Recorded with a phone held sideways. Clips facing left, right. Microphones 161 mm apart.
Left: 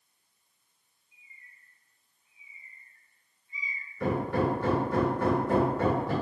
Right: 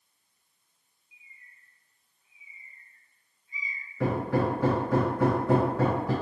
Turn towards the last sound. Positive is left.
turn(degrees=-85)